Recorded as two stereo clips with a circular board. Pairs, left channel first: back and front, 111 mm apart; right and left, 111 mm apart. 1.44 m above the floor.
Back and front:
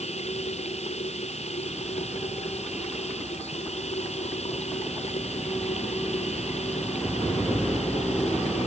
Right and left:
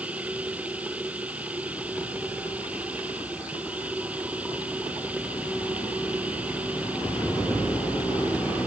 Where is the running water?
170° left.